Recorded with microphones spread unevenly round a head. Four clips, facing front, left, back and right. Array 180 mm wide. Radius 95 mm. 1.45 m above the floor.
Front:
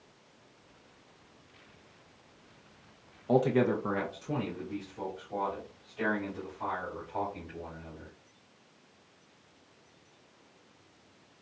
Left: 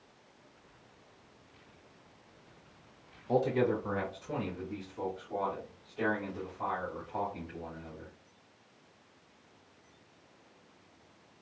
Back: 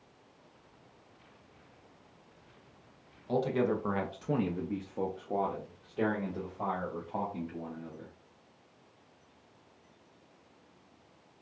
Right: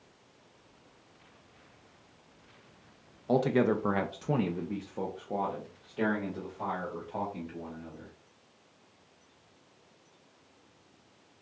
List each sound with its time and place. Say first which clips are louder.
3.3 s a man speaking: right 3 dB, front 4 dB; 45° right, 0.6 m; by 8.1 s 165° right, 2.5 m